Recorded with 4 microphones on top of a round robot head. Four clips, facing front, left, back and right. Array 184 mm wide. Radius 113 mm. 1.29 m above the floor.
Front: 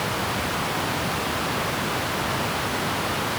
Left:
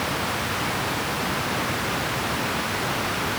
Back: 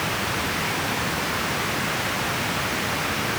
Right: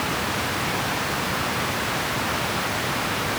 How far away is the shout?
I don't hear a shout.